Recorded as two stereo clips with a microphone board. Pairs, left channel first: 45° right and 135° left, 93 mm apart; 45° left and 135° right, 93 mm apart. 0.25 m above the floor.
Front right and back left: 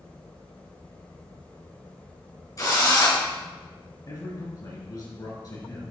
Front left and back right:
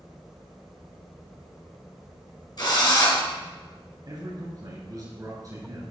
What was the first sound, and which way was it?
A drill, 5° left.